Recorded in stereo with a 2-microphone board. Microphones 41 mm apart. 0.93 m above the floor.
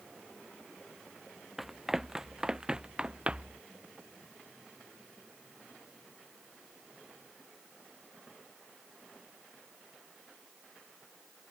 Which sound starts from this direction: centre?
Running footsteps, at 1.6 s.